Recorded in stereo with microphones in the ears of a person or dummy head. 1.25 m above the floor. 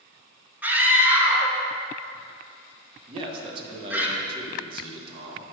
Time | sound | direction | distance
0.6 | a scream | 5° right (ahead or behind) | 1.7 m
3.1 | a man speaking | 30° right (ahead or behind) | 1.3 m